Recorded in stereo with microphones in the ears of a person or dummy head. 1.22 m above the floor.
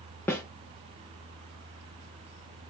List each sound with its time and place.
0.3 s a snare drum: 10° left (ahead or behind), 0.9 m